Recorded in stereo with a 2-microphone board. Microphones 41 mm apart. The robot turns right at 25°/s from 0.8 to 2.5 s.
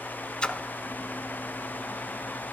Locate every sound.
0.4 s a splash: 25° left (ahead or behind), 0.7 m